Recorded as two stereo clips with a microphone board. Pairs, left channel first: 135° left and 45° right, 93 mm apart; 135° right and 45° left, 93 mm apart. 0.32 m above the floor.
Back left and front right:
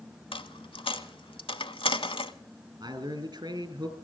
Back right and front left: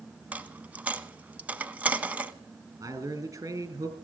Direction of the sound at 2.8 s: 5° right.